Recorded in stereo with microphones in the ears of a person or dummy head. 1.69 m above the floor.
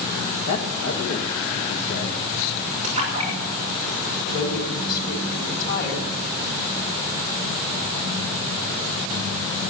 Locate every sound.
0.5 s a man speaking: 60° left (ahead or behind), 1.6 m
2.8 s a splash: 35° right (ahead or behind), 6 m
4.2 s a woman speaking: 55° left (ahead or behind), 4 m